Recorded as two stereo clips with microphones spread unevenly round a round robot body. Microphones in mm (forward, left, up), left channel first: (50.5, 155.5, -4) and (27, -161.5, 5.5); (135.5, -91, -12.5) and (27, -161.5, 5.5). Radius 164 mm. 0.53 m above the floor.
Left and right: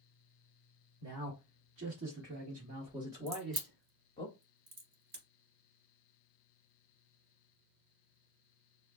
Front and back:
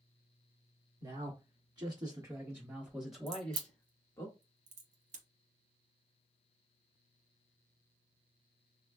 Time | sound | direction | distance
1.0 | a man speaking | 105° right | 1.6 m
3.3 | a crack | 150° right | 0.7 m